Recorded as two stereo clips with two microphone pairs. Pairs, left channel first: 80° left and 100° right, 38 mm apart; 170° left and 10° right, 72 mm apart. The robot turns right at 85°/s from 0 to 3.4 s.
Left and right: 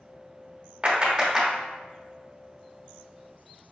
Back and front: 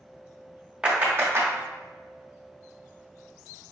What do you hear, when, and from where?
0.8 s a clap: 80° right, 0.9 m; by 1.5 s 25° right, 0.9 m